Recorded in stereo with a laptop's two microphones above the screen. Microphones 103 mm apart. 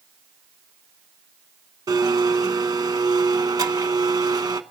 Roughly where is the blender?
Right.